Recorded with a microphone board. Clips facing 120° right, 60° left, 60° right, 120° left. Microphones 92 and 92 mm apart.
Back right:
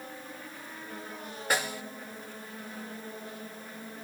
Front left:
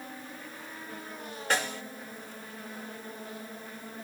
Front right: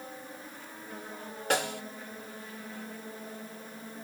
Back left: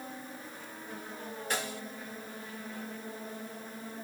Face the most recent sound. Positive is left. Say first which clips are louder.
# even, front right 7 dB
turn(degrees=-40)